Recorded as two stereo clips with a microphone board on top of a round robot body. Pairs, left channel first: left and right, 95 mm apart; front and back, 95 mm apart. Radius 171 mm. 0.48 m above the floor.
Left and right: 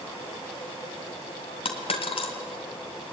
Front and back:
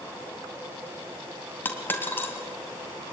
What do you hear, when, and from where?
1.6 s a dropped coin: 70° left, 2.5 m